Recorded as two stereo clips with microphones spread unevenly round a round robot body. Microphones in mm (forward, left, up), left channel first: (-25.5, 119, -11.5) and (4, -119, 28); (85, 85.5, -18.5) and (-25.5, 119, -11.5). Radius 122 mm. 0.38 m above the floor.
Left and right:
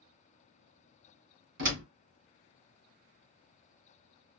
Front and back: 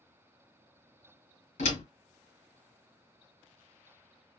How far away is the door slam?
About 2 m.